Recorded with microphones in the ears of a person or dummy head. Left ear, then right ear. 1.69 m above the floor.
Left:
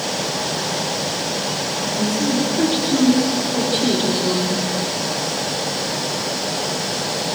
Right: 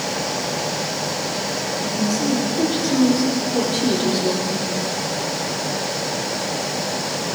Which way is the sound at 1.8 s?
5° left (ahead or behind).